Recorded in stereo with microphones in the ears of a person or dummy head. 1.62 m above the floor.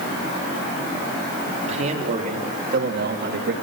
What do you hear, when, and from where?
1.7 s a man speaking: 50° right (ahead or behind), 4 m; by 3.5 s 80° right, 3.5 m